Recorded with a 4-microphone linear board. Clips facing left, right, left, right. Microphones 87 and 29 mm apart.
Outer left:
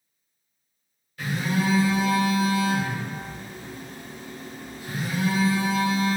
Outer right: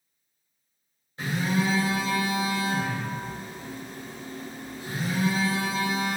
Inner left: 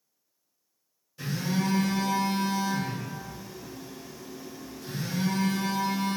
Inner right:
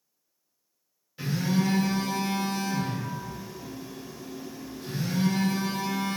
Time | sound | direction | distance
1.2 | a phone buzzing | 25° right (ahead or behind) | 1.9 m